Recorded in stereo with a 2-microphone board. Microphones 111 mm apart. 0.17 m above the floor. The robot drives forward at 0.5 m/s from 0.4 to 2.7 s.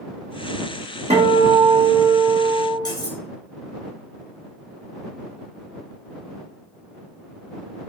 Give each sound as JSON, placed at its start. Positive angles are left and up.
{"t": 1.1, "sound": "a guitar", "side_deg": -85, "distance_m": 1.4}
{"t": 2.9, "sound": "cutlery clinking", "side_deg": 40, "distance_m": 1.5}